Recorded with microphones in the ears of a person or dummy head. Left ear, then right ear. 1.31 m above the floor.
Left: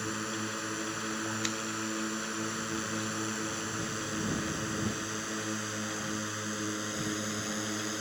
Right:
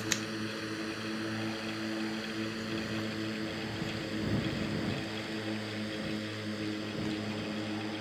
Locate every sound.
0.0 s a drone: 45° left (ahead or behind); by 8.0 s 55° left (ahead or behind)